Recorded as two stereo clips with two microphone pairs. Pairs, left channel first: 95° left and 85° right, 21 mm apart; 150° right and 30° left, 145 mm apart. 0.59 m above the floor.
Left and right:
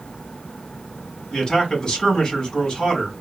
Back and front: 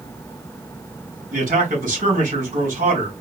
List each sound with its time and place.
1.3 s a man speaking: 45° left, 3.5 m